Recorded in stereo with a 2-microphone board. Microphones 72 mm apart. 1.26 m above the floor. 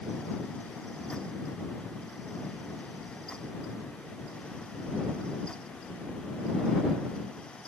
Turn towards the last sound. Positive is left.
No sound to turn to.